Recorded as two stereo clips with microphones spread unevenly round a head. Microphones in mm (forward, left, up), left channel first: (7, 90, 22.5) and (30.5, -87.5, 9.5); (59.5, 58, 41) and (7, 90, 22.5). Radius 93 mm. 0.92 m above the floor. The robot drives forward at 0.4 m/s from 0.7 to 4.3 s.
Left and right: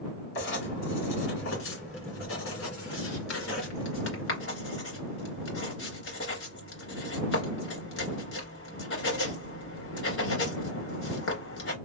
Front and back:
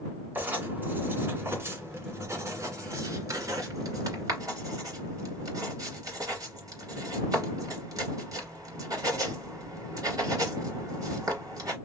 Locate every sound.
0.3 s writing: 85° left, 1.9 m; by 11.8 s 125° left, 2.5 m